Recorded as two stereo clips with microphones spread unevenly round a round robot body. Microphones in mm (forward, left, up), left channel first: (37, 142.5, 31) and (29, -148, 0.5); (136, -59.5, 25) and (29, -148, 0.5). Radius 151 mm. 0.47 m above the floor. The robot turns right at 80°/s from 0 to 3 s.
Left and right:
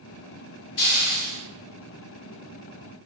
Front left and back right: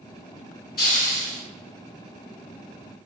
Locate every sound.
0.8 s a hiss: 65° left, 0.9 m; by 1.4 s 115° left, 0.9 m